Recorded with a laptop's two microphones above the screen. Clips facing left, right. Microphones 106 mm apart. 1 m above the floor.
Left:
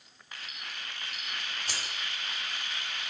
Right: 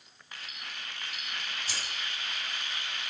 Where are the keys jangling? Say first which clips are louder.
Even; 65° left (ahead or behind), 2 m.